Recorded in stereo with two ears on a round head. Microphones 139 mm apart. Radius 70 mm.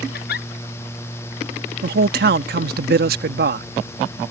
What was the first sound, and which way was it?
A giggle, 70° left (ahead or behind).